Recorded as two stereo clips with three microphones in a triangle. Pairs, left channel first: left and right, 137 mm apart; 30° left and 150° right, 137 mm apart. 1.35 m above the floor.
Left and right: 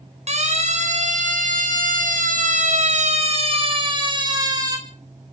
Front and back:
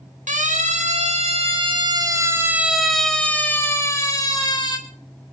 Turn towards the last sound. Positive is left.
turn(degrees=-25)